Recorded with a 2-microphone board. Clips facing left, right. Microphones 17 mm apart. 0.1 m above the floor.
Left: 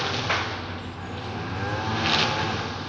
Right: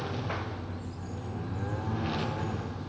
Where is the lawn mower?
60° left (ahead or behind); by 2.9 s 85° left.